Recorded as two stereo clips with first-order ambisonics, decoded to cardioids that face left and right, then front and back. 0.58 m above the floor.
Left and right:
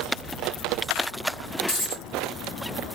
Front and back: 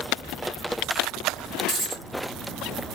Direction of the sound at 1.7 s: 135° left.